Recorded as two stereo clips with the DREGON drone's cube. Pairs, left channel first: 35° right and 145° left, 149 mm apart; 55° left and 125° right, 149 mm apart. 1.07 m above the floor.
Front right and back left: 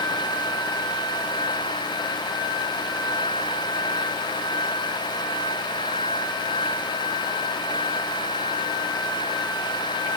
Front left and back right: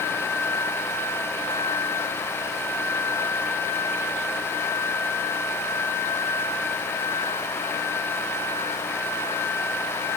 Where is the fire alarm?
No fire alarm in this recording.